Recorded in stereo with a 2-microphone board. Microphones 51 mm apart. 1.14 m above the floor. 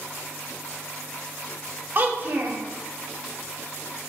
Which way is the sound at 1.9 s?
40° right (ahead or behind).